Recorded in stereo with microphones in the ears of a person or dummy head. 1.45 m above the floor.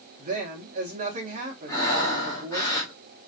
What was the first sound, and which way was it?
A woman speaking, 40° right (ahead or behind).